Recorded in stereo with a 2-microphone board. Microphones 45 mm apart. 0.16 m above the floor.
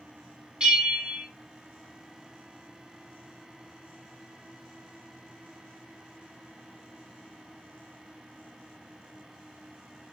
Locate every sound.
0.6 s a bell: 20° right (ahead or behind), 1.3 m